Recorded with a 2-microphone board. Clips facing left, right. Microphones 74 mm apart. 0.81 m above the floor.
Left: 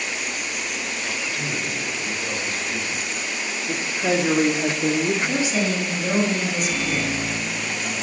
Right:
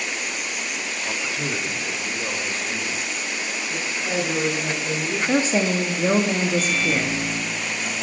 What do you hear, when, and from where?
1.1 s a man speaking: 25° right (ahead or behind), 1.4 m
3.7 s a woman speaking: 70° left (ahead or behind), 1.5 m
5.2 s a woman speaking: 40° right (ahead or behind), 1.4 m
6.6 s a microwave: 20° left (ahead or behind), 4.5 m